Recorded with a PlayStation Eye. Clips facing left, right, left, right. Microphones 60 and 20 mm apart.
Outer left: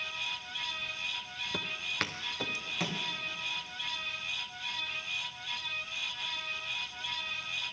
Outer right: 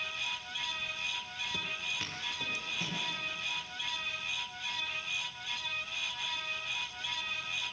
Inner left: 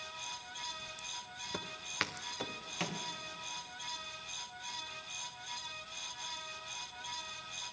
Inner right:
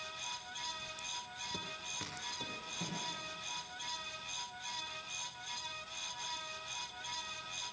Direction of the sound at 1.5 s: 45° left (ahead or behind).